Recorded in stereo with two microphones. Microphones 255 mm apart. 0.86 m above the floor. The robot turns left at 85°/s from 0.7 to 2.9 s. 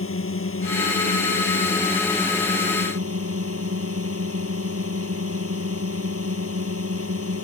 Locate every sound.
0.0 s a drone: 125° left; by 7.4 s 65° right